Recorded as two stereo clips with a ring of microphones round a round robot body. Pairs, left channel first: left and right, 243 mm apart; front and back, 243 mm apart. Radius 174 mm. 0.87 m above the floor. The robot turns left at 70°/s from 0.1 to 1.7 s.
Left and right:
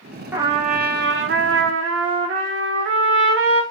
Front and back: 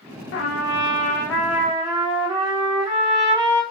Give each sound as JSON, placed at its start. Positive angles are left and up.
{"t": 0.3, "sound": "a trumpet", "azimuth_deg": -10, "distance_m": 0.6}